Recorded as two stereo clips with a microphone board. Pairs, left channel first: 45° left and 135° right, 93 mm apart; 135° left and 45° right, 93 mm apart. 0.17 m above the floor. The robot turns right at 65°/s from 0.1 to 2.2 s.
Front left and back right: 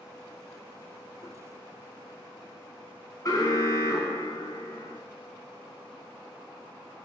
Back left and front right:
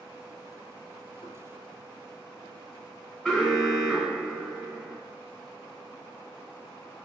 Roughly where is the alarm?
Ahead left.